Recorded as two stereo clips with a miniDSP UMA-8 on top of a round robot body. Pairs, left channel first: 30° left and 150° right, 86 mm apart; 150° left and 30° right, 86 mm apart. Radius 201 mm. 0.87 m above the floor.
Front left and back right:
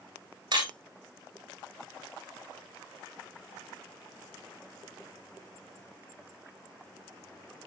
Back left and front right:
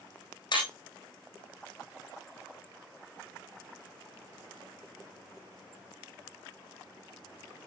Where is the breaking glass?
Straight behind, 8 m.